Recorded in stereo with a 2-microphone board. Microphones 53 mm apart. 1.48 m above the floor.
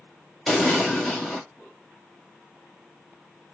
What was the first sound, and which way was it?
An explosion, 5° left (ahead or behind).